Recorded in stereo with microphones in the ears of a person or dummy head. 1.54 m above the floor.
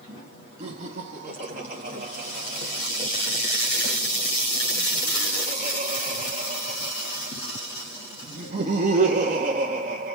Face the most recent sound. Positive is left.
turn(degrees=-40)  # may be behind; listen again after turning